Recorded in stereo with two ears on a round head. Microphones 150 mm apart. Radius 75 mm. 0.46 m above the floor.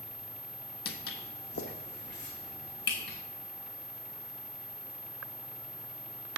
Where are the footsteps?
65° left (ahead or behind), 1.3 m; by 3.2 s 75° left (ahead or behind), 3.5 m.